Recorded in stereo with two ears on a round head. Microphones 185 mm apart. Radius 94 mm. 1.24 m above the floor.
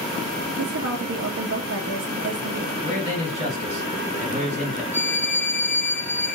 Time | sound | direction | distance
0.6 | a woman speaking | 65° right (ahead or behind) | 0.6 m
2.8 | a man speaking | 35° right (ahead or behind) | 1.7 m
4.9 | a violin | 10° left (ahead or behind) | 0.7 m